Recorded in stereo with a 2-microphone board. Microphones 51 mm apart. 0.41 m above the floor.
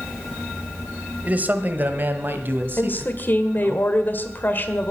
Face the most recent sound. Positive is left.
turn(degrees=40)  # may be behind; listen again after turning